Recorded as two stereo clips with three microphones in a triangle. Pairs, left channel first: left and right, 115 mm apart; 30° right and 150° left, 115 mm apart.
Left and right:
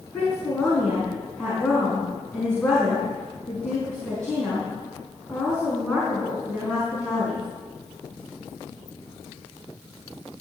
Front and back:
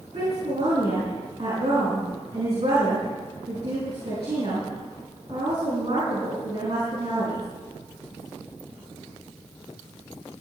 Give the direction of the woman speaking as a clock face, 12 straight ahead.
6 o'clock.